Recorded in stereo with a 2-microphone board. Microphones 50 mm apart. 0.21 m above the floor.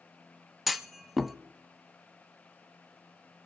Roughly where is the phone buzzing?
I don't hear a phone buzzing.